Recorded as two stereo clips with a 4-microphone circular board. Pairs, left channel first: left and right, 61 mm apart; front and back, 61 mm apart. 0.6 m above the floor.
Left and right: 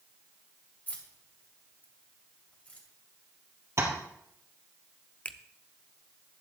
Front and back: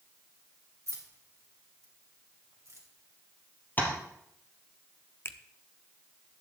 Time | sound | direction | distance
0.9 | keys jangling | 150° left | 2.5 m
3.8 | tapping | 55° right | 3 m
5.2 | a finger snap | 30° left | 0.6 m